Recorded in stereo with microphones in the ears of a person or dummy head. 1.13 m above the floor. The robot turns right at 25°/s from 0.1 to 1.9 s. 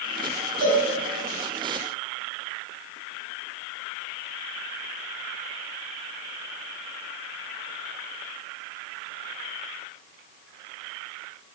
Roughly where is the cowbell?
Right.